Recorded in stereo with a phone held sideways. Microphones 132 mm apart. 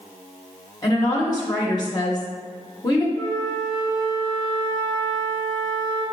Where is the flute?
35° right (ahead or behind), 1.2 m.